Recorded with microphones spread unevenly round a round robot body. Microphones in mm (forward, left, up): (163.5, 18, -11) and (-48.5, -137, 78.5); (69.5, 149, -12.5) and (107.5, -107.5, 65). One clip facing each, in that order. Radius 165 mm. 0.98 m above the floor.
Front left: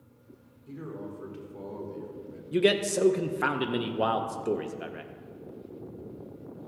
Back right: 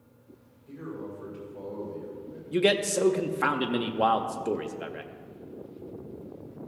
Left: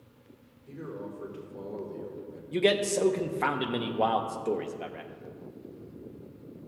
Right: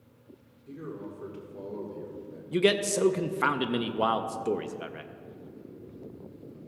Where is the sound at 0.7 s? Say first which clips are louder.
Back right 1 dB, even; 5° right, 2.5 m; by 2.4 s 10° left, 1.9 m.